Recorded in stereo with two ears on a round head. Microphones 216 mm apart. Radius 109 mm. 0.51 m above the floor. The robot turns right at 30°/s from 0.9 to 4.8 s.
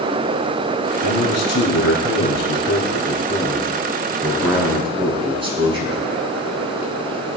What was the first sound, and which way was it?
A man speaking, 90° left.